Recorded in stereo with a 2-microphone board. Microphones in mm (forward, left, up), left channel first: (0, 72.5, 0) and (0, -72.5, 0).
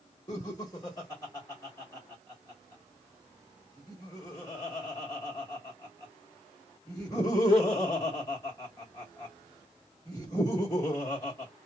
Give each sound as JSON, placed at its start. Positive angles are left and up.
{"t": 0.3, "sound": "laughter", "side_deg": 25, "distance_m": 1.2}